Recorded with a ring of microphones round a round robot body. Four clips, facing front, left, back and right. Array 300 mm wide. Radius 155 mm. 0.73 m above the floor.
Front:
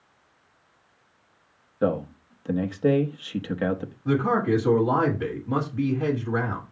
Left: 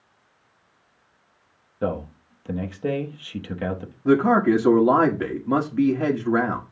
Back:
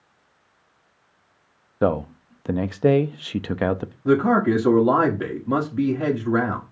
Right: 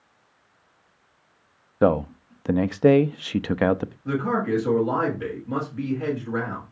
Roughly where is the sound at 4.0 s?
Behind left.